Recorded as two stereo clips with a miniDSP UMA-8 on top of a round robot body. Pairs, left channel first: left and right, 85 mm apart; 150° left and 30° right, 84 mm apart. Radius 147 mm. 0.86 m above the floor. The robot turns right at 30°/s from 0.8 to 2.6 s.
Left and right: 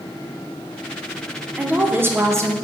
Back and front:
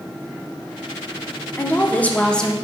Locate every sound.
1.6 s a woman speaking: 160° right, 0.7 m; by 2.5 s 130° right, 0.7 m